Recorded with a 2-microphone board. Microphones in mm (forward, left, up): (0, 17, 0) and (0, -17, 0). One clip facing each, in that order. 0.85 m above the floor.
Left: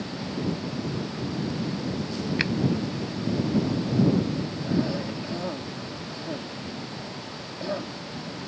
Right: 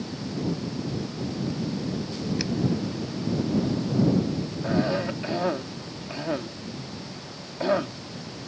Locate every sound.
2.4 s a finger snap: 45° left (ahead or behind)
4.6 s a cough: 40° right (ahead or behind)